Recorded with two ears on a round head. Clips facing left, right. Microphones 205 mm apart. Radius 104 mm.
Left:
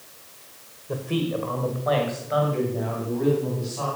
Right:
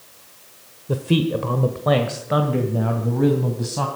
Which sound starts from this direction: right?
A man speaking, at 0.9 s.